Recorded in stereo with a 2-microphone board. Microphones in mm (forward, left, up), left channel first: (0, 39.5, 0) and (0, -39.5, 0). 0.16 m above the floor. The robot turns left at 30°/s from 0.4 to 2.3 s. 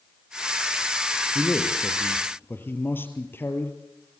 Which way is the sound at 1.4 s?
Centre (ahead or behind).